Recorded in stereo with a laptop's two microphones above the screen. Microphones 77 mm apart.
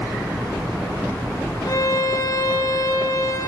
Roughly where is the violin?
Left.